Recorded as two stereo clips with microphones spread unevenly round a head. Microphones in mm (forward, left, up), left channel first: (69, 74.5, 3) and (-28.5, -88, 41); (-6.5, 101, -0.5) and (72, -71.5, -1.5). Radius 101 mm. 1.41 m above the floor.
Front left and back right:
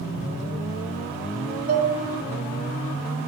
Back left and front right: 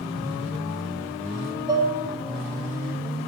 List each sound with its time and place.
1.7 s dishes clattering: 130° right, 0.6 m